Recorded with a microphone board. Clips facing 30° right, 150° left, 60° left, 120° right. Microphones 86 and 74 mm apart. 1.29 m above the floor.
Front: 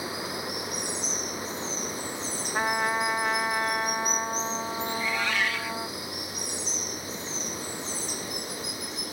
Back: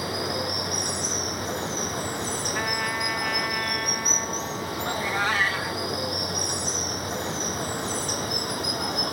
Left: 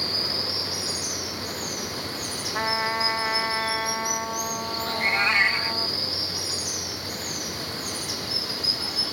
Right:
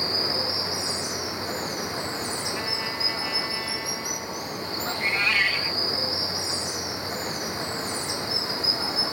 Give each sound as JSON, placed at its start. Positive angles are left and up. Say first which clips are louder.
{"t": 0.0, "sound": "running water", "louder": "back 5 dB, right 3 dB", "azimuth_deg": 175}
{"t": 2.5, "sound": "a trumpet", "louder": "front 5 dB, left 5 dB", "azimuth_deg": 35}
{"t": 4.9, "sound": "a cat meowing", "louder": "back 5 dB, left 2 dB", "azimuth_deg": 115}